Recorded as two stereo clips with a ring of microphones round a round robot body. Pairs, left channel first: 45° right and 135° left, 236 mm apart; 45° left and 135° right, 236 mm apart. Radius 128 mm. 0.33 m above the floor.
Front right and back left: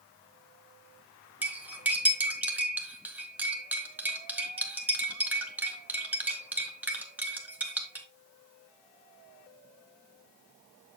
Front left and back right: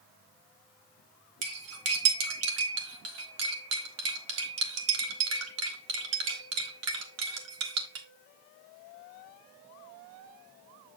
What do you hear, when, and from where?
1.4 s cutlery clinking: 140° right, 1.5 m